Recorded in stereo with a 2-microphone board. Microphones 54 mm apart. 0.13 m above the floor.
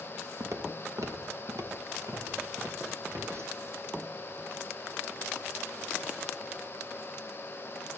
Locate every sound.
0.4 s footsteps: 65° right (ahead or behind), 1.3 m; by 3.7 s 60° right (ahead or behind), 3.5 m